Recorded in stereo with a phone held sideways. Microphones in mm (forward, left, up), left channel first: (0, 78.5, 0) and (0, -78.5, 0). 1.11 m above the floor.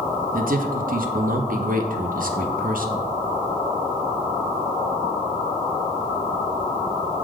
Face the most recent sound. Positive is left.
turn(degrees=-65)  # may be behind; listen again after turning